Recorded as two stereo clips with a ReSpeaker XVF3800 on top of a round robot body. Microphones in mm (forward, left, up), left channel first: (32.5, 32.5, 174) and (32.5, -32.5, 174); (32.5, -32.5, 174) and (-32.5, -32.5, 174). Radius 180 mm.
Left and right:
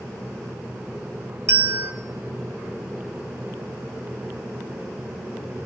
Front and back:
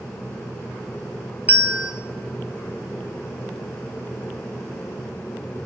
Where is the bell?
115° right, 1.7 m.